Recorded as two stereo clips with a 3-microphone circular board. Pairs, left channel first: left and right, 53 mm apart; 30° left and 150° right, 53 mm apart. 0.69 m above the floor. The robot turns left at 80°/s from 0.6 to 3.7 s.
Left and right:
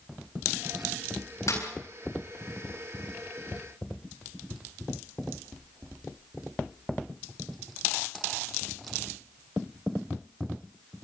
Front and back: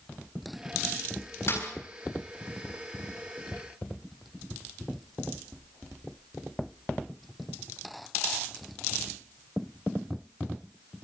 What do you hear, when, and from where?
1.5 s a snare drum: 65° left, 8 m; by 1.6 s 55° left, 8 m